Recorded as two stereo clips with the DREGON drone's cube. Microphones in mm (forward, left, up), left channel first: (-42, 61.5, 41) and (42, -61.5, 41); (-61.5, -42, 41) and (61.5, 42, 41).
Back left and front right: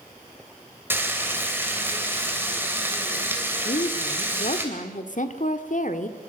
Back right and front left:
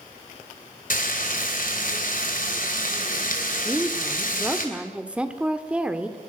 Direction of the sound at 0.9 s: 130° right.